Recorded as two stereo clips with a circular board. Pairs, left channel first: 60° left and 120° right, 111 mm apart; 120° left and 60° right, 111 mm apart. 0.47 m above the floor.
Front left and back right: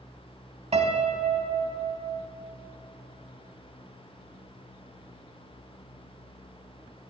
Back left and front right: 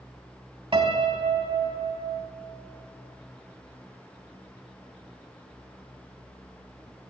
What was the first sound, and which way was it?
A piano, 100° right.